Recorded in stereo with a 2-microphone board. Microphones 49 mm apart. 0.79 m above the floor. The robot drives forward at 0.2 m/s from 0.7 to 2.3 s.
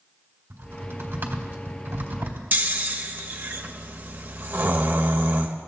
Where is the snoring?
35° right (ahead or behind), 0.9 m.